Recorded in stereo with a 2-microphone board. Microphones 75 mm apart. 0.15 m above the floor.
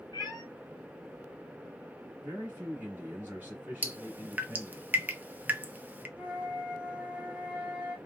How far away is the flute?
About 1.1 m.